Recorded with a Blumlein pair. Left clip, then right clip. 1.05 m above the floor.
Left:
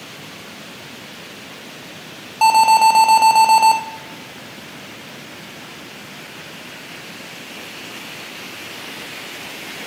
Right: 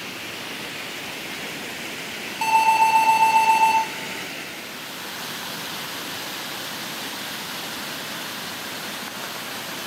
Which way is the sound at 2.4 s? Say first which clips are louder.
Left 6 dB; 60° left.